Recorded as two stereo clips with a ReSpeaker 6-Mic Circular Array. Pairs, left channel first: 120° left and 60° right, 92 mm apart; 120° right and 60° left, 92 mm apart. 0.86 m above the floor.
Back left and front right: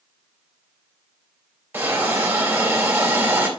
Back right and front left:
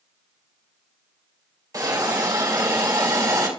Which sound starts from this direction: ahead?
A hiss, at 1.7 s.